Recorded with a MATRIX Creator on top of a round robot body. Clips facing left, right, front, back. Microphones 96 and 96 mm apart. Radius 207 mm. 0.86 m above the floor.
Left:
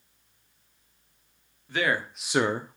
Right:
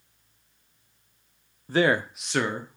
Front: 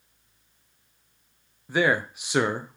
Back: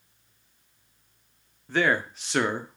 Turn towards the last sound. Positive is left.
turn(degrees=80)